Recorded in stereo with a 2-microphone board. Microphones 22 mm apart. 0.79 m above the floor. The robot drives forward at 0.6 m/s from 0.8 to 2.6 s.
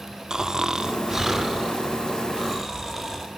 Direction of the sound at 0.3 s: 30° right (ahead or behind).